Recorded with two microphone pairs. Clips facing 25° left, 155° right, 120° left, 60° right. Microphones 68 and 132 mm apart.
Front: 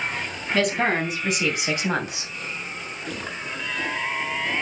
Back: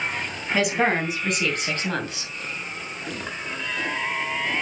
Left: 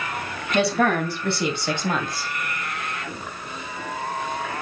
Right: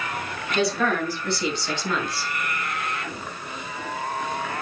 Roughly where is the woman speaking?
Behind left.